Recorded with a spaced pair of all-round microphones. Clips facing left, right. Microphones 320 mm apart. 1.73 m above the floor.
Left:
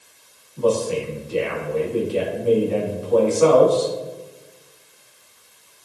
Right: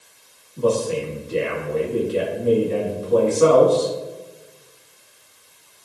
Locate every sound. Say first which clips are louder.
0.6 s a man speaking: even; 25° right (ahead or behind), 2.5 m